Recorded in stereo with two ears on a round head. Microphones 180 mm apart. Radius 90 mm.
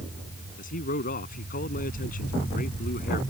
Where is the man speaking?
45° left (ahead or behind).